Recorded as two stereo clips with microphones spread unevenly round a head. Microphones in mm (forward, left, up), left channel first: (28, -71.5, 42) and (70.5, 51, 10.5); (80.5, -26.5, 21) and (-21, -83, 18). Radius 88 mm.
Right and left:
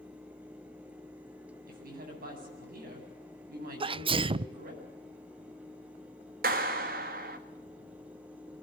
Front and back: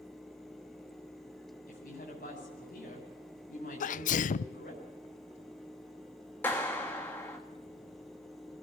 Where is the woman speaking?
65° left, 8.5 m.